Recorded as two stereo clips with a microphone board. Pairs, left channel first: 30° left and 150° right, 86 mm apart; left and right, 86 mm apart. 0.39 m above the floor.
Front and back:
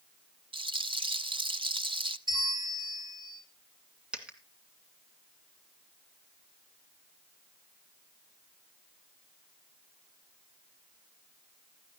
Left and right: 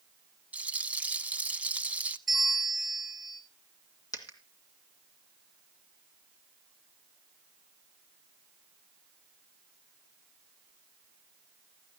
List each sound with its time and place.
0.5 s a rattle: 165° right, 0.6 m
2.3 s a bell: straight behind, 3.5 m
4.1 s a dropped coin: 130° left, 2 m